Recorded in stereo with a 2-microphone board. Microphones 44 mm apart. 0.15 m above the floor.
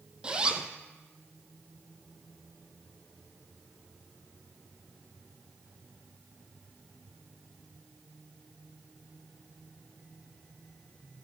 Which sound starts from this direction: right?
A zipper, at 0.2 s.